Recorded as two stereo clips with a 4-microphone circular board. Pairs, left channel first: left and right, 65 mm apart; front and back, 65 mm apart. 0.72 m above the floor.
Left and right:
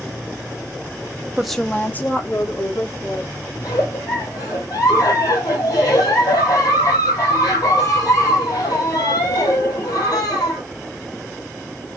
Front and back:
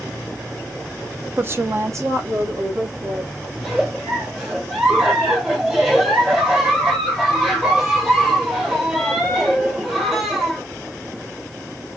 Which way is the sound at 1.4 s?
160° right.